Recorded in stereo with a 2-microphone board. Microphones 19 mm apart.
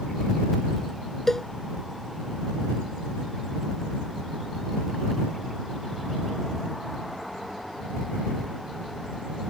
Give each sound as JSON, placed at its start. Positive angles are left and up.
{"t": 1.3, "sound": "a cowbell", "side_deg": 25}